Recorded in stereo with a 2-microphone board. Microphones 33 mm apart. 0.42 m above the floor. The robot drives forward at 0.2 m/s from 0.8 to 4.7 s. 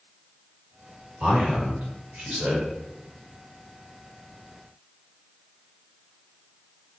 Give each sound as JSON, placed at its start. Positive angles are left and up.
{"t": 1.2, "sound": "a man speaking", "side_deg": -45, "distance_m": 1.2}